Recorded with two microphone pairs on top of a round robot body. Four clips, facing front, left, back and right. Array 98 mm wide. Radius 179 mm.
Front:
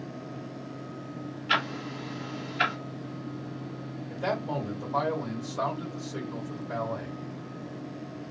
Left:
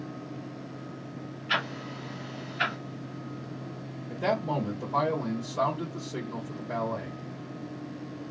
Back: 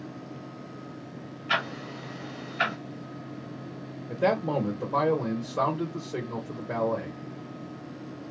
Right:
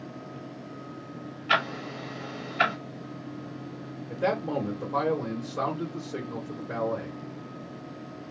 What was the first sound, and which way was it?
Ticking, 95° right.